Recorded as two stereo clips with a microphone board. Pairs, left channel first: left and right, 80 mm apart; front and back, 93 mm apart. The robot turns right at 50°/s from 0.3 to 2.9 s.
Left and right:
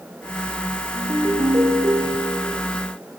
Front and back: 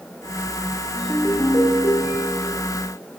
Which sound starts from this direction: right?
A ringtone, at 0.9 s.